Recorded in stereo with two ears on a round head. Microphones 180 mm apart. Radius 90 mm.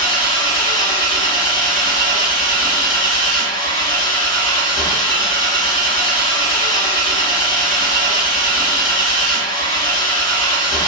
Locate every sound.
0.0 s an engine running: 20° left (ahead or behind), 1.5 m